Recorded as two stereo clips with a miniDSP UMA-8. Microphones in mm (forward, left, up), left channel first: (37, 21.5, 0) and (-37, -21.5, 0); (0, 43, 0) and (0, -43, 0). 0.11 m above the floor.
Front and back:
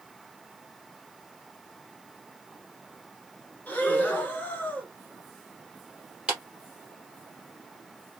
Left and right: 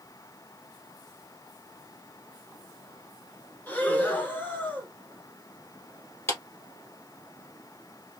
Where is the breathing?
60° left, 1.2 m.